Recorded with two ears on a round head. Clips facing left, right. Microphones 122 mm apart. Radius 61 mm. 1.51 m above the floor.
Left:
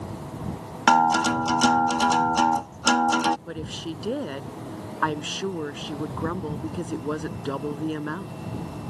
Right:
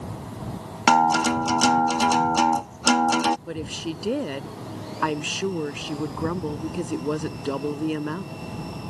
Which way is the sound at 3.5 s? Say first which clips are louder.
Right 2 dB; 10° right (ahead or behind).